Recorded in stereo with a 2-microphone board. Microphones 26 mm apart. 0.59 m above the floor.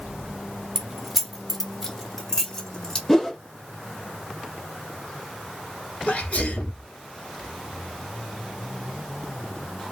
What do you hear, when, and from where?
0.8 s keys jangling: 20° right (ahead or behind), 0.5 m; by 3.0 s 25° left (ahead or behind), 1.4 m
3.1 s a whoosh: 15° left (ahead or behind), 1.2 m
6.1 s a sneeze: 65° left (ahead or behind), 1.5 m